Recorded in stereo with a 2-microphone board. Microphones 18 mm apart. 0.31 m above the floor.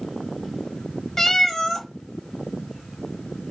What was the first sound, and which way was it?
A cat meowing, 25° left (ahead or behind).